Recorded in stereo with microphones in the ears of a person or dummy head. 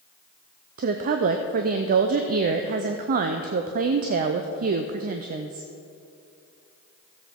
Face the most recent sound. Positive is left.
turn(degrees=-45)  # may be behind; listen again after turning